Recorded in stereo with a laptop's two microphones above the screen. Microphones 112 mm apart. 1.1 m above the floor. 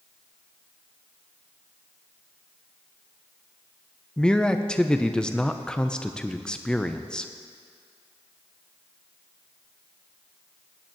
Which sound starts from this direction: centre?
A man speaking, at 4.2 s.